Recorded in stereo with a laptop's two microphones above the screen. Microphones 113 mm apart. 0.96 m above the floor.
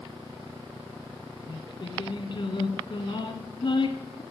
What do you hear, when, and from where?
1.5 s singing: 55° left (ahead or behind), 1.4 m